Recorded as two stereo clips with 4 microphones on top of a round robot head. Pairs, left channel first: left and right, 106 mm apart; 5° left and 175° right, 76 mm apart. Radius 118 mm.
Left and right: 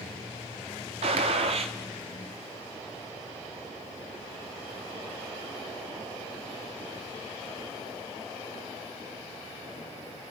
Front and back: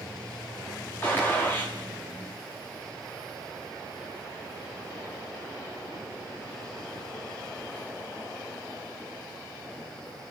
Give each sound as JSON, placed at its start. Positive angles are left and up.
{"t": 1.0, "sound": "a gunshot", "azimuth_deg": -65, "distance_m": 1.2}